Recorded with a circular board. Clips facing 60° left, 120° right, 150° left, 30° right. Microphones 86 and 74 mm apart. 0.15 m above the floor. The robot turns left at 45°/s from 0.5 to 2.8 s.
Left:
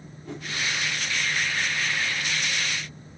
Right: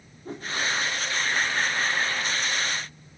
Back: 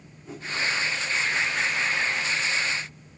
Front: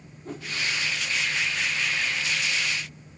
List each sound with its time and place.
0.2 s a whoosh: 70° right, 5.5 m